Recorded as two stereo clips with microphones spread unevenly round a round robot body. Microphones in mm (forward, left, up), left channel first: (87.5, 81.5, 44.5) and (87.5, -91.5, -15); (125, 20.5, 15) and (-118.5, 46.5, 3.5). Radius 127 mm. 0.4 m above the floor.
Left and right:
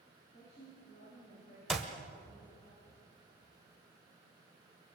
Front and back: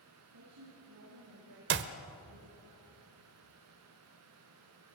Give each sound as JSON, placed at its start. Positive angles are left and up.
{"t": 0.3, "sound": "a woman speaking", "azimuth_deg": 150, "distance_m": 7.5}
{"t": 1.7, "sound": "a clap", "azimuth_deg": -165, "distance_m": 1.1}